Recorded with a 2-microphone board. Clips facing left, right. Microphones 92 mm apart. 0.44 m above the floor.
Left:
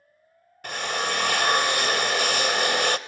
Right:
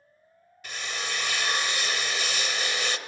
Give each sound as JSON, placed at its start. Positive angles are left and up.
{"t": 0.6, "sound": "a drill", "side_deg": 55, "distance_m": 0.5}